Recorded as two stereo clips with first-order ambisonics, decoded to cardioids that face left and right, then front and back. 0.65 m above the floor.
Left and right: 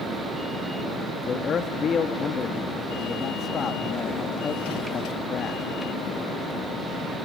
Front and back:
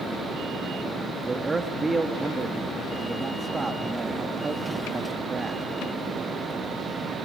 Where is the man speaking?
120° left, 0.8 m.